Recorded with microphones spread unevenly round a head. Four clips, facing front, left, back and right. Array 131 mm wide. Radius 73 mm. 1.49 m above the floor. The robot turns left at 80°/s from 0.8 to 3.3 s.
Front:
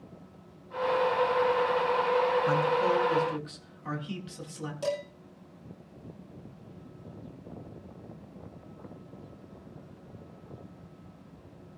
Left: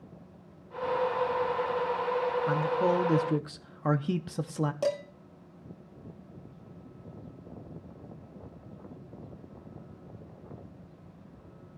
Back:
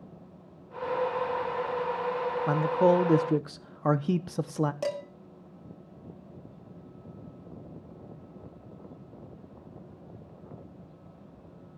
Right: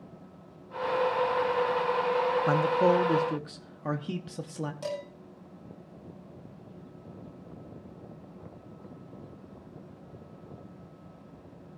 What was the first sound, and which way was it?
A man speaking, 125° right.